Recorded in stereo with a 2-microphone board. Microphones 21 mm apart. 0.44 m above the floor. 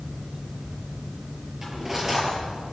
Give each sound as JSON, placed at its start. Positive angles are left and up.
{"t": 1.6, "sound": "cutlery clinking", "side_deg": -20, "distance_m": 6.0}